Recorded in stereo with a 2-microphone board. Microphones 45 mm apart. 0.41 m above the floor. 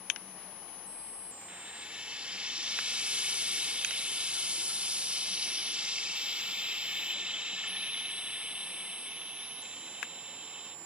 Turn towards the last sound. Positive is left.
turn(degrees=-25)  # may be behind; listen again after turning